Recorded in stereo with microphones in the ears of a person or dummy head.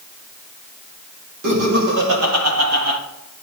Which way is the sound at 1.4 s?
75° right (ahead or behind).